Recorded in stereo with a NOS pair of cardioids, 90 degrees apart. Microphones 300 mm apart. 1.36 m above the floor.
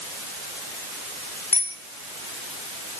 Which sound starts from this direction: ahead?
A bicycle bell, at 1.5 s.